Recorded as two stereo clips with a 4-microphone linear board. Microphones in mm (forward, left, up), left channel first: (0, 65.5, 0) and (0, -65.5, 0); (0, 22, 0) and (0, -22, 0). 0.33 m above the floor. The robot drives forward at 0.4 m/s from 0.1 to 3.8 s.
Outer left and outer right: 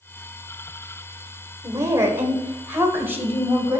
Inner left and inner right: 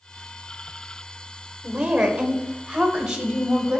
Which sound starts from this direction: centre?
A woman speaking, at 1.6 s.